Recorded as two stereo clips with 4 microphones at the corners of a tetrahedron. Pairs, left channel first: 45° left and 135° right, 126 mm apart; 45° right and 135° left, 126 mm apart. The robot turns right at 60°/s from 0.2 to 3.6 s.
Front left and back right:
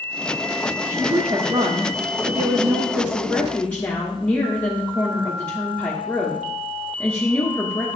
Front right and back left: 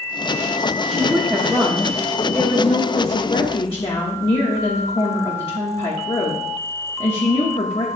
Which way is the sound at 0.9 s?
165° left.